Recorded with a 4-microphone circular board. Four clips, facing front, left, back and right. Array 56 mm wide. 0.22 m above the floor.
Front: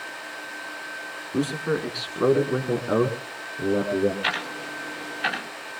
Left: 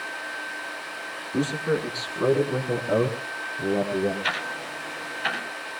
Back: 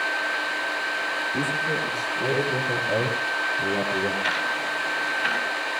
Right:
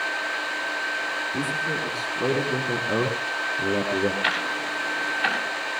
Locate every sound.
1.3 s a man speaking: 30° left, 3 m; by 4.1 s 35° right, 3.5 m
4.2 s ticking: 70° right, 9.5 m